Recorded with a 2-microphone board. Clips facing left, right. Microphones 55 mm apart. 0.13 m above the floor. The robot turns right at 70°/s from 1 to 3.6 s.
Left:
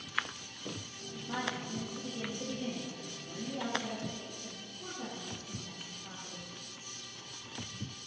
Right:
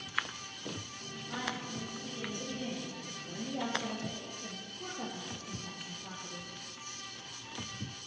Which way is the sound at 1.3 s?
95° left.